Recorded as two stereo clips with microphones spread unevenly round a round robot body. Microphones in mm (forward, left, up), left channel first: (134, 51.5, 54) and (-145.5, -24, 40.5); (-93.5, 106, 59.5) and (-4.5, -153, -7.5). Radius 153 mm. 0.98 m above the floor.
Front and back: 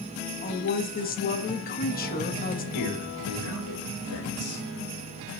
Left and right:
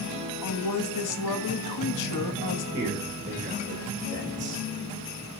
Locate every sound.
0.4 s a woman speaking: 75° left, 1.1 m
2.7 s a man speaking: 10° right, 3 m